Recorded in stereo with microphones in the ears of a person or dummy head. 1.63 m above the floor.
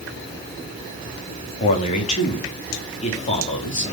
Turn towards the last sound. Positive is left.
turn(degrees=40)  # may be behind; listen again after turning